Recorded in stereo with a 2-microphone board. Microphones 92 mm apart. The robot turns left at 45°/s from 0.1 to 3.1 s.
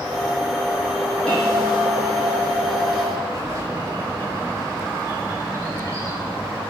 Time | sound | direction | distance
1.3 | a bell | 10° left | 3.5 m
3.3 | a bird | 40° right (ahead or behind) | 1.4 m